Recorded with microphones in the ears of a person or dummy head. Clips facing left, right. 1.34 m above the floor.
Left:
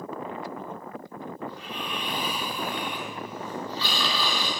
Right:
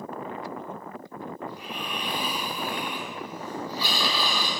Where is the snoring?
15° right (ahead or behind), 1.5 m.